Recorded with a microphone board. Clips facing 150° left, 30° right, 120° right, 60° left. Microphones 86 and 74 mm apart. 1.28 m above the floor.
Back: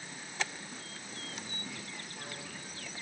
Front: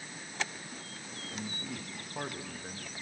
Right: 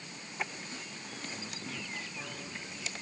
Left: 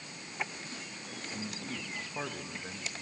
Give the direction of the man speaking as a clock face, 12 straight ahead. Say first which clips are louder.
Front 7 dB, left 5 dB; 12 o'clock.